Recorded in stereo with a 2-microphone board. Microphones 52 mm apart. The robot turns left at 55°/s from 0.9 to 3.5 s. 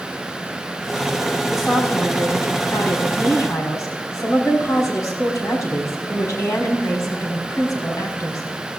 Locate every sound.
1.5 s a woman speaking: 170° right, 5 m; by 8.4 s 80° left, 5 m